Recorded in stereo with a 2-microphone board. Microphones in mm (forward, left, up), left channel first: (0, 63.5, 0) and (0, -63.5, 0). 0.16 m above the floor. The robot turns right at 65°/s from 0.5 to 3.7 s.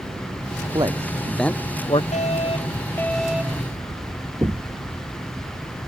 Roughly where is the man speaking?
Right.